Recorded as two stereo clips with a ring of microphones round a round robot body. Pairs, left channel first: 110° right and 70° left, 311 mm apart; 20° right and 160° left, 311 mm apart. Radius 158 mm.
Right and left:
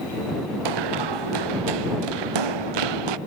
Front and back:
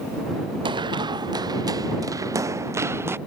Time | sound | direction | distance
0.7 | running footsteps | 80° left | ?